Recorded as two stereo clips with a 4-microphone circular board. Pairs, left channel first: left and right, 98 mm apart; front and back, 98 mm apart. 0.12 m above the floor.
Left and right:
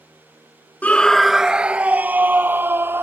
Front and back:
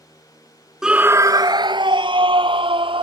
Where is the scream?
110° left; by 3.0 s 155° right.